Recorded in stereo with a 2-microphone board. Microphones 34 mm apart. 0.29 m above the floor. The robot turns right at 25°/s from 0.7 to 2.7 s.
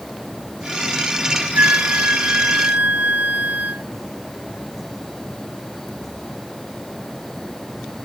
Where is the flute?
60° right (ahead or behind); by 3.9 s 55° right (ahead or behind).